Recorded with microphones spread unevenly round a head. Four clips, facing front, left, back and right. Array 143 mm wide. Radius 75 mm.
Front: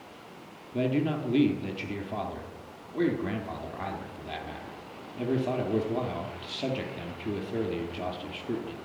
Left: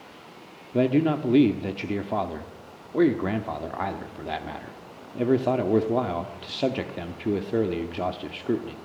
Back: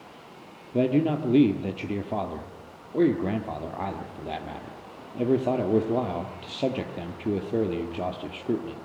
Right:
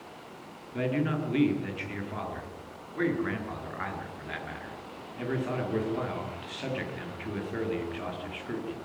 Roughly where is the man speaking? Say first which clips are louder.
Left 8 dB, back 5 dB; behind left.